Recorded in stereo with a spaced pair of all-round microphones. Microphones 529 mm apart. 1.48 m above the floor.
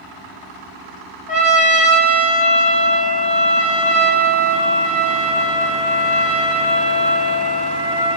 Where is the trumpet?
15° left (ahead or behind), 1.7 m.